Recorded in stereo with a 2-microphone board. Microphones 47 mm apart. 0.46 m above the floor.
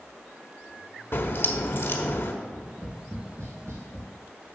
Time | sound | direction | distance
1.1 | a crack | 50° left (ahead or behind) | 1.4 m
2.4 | tapping | 75° right (ahead or behind) | 4.5 m